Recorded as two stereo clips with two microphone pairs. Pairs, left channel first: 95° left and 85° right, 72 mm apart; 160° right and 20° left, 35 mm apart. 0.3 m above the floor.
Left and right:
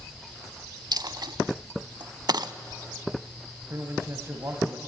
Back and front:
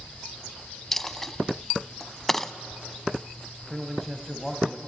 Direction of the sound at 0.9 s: 80° right.